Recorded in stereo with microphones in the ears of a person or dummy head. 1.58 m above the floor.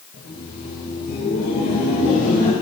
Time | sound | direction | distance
0.1 | laughter | 75° left (ahead or behind) | 2 m